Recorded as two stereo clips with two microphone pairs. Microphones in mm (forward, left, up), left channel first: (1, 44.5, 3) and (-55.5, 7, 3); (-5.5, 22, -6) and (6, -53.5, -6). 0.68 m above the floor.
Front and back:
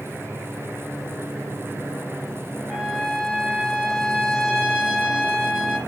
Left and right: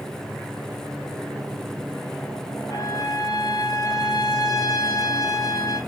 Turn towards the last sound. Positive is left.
turn(degrees=130)